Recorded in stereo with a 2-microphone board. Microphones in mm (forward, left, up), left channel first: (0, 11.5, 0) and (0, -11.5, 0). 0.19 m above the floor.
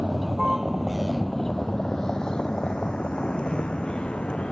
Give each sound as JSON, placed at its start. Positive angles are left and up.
{"t": 0.0, "sound": "a vehicle", "side_deg": -45}